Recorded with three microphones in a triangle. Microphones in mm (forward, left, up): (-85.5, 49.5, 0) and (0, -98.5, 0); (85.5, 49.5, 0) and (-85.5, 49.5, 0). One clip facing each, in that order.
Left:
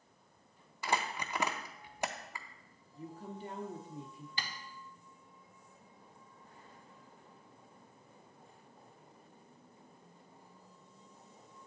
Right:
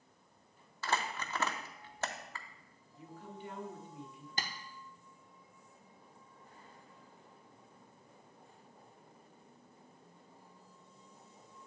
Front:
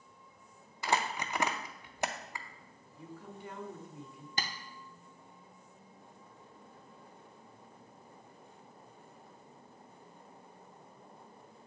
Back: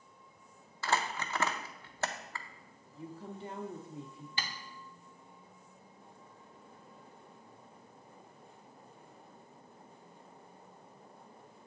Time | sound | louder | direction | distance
0.8 | crumpling | left 1 dB, front 1 dB | 60° left | 0.5 m
3.0 | a woman speaking | left 4 dB, back 4 dB | 140° left | 0.8 m
4.4 | tapping | right 3 dB, front 3 dB | 30° right | 0.6 m